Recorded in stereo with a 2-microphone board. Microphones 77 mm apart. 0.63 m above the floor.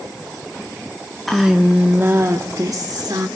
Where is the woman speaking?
Centre (ahead or behind), 1.3 m; by 3.3 s 60° right (ahead or behind), 2 m.